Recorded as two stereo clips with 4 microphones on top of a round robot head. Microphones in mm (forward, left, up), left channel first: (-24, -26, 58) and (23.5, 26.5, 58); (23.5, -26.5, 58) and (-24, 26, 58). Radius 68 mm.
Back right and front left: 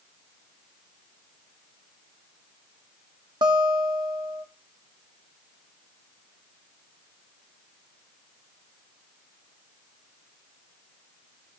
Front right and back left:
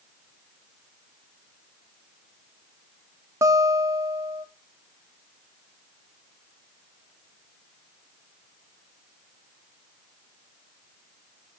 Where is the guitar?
80° left, 1.1 m.